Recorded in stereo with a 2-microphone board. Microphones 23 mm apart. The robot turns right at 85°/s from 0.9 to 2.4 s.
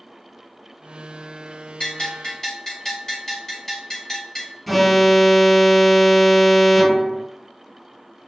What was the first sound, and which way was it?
A bell, 100° left.